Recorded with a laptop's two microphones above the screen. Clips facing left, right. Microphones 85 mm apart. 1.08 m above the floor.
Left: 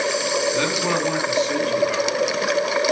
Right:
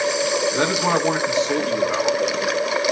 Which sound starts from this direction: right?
A man speaking, at 0.5 s.